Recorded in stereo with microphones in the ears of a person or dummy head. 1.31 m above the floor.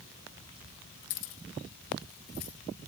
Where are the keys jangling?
75° left (ahead or behind), 1.7 m; by 2.5 s 45° left (ahead or behind), 2 m.